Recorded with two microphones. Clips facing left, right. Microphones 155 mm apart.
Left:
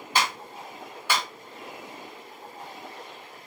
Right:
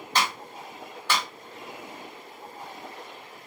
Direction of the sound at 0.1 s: 10° left (ahead or behind).